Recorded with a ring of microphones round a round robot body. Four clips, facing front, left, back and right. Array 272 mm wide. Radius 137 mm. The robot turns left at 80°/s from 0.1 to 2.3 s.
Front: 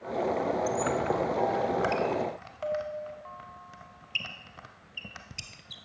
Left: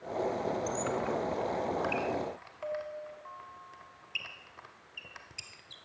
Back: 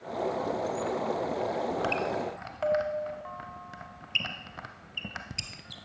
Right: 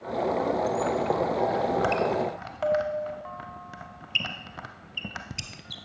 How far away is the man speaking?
I don't hear a man speaking.